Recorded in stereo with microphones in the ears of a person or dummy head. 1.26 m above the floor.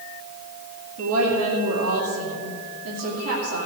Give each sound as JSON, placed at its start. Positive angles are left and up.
{"t": 1.0, "sound": "a woman speaking", "side_deg": -80, "distance_m": 2.5}